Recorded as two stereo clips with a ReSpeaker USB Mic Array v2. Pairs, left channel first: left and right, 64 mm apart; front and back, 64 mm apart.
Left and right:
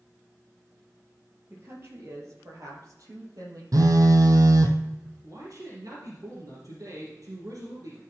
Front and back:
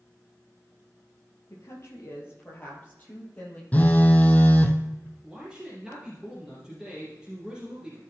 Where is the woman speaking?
40° right, 3.5 m; by 3.6 s 70° right, 4.5 m.